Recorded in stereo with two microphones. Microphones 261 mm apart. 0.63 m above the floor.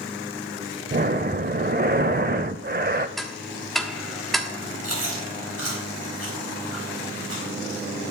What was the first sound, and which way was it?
Breathing, 40° right (ahead or behind).